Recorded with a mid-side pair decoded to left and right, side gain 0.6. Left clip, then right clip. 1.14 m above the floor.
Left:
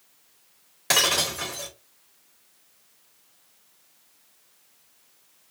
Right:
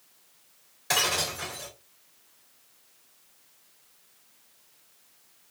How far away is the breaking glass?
About 1.7 m.